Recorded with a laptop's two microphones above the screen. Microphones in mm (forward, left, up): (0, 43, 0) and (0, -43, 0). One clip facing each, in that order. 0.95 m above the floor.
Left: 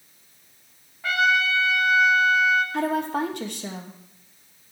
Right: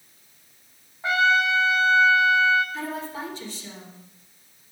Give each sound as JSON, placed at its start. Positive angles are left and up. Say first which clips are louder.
{"t": 1.0, "sound": "a trumpet", "louder": "right 1 dB", "side_deg": -25, "distance_m": 1.1}
{"t": 2.7, "sound": "a woman speaking", "louder": "left 8 dB", "side_deg": 60, "distance_m": 1.3}